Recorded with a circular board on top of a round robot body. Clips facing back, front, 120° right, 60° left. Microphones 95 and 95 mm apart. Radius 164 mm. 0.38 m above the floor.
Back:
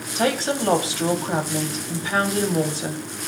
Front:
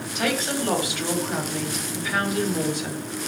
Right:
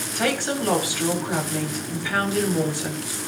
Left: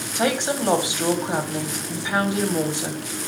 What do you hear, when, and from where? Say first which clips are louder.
0.1 s a woman speaking: back 4 dB, left 2 dB; 125° left, 3 m